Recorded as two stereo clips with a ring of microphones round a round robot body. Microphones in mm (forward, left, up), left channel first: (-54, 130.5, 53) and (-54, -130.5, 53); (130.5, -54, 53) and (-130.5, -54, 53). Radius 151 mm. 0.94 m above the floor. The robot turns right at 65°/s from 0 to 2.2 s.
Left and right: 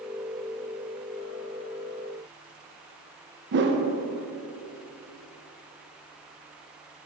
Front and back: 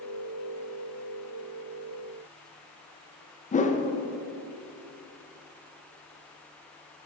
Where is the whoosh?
55° right, 0.8 m.